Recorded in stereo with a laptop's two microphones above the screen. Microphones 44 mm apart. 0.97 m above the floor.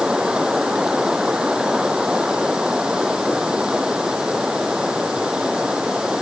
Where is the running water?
15° right (ahead or behind).